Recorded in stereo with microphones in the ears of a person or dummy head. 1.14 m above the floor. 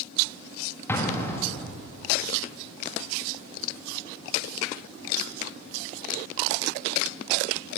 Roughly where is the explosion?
Centre.